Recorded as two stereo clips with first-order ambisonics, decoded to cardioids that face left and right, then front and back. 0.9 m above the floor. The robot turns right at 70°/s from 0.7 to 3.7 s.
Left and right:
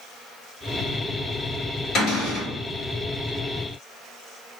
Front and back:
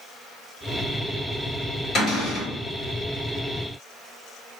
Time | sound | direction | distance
1.9 | a cupboard door | 45° left | 1.6 m